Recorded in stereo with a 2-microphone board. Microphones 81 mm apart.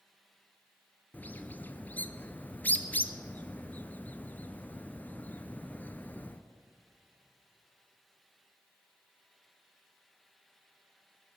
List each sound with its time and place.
1.1 s a bird: 25° left (ahead or behind), 0.7 m